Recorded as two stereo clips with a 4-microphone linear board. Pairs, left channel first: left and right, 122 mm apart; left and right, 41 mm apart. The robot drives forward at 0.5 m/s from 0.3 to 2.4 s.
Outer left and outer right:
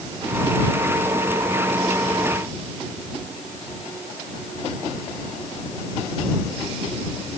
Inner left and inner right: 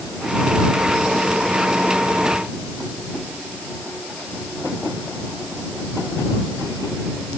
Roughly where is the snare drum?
I don't hear a snare drum.